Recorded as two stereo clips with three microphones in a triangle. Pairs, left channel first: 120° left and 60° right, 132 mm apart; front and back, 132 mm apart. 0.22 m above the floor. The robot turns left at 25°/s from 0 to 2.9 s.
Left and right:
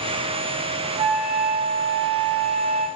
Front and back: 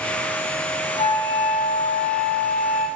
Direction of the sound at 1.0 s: 10° left.